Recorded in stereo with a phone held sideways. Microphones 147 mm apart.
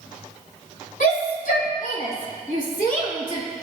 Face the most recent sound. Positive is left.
turn(degrees=85)